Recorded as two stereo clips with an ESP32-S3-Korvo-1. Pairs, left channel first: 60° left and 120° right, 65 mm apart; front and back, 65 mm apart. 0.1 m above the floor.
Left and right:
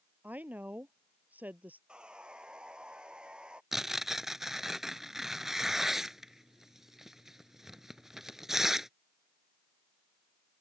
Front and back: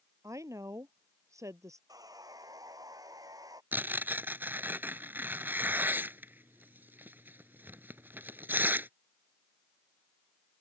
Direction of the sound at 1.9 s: 165° left.